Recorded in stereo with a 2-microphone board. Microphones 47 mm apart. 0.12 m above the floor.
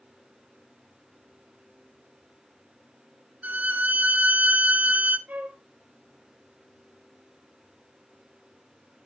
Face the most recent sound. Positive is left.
turn(degrees=-35)  # may be behind; listen again after turning